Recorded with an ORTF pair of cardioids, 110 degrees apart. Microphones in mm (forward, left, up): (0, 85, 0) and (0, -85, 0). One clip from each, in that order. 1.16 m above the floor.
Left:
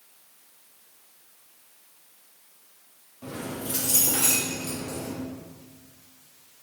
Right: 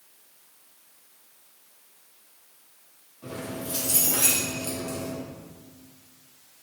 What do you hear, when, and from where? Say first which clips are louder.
3.2 s keys jangling: even; 35° left, 1.1 m; by 5.2 s 60° right, 1.1 m